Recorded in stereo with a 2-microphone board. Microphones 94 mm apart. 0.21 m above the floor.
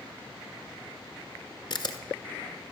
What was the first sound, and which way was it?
A camera shutter, 55° left (ahead or behind).